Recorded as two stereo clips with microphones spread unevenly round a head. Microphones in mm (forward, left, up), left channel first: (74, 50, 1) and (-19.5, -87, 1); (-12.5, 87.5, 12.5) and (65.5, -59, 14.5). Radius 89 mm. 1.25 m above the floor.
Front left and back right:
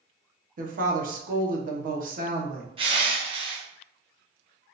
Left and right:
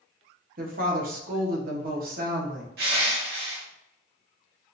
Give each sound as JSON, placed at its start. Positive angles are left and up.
{"t": 0.6, "sound": "a woman speaking", "azimuth_deg": -95, "distance_m": 0.9}
{"t": 2.8, "sound": "crushing", "azimuth_deg": -70, "distance_m": 0.9}